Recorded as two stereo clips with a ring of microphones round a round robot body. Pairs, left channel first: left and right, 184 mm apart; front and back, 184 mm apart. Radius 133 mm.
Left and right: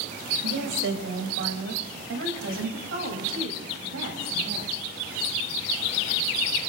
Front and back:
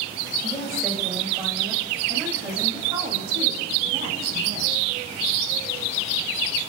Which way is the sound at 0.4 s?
90° right.